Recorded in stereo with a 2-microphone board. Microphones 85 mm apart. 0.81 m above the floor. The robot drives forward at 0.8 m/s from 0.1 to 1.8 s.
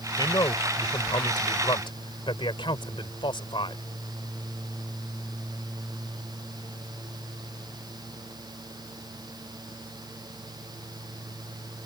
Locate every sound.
0.2 s a man speaking: 55° left (ahead or behind); by 3.8 s 75° left (ahead or behind)